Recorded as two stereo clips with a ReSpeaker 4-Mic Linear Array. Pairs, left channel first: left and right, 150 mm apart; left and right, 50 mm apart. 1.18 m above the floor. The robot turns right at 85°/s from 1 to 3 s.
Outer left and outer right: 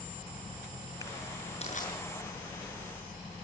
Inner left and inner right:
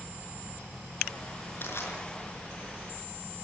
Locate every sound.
1.6 s crushing: 45° left (ahead or behind), 6 m; by 1.9 s 70° left (ahead or behind), 6 m